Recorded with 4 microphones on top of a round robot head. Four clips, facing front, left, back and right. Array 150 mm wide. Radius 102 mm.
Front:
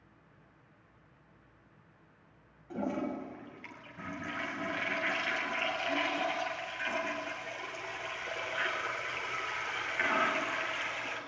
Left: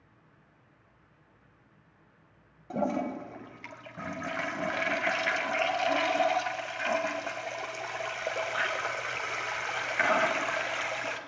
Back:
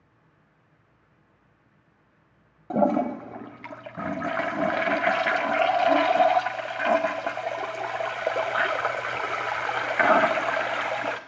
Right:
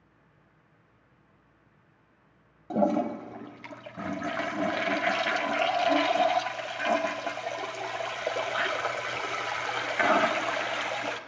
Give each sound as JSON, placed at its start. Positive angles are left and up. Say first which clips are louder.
{"t": 2.7, "sound": "a toilet flushing", "louder": "right 5 dB, back 12 dB", "azimuth_deg": -165, "distance_m": 1.5}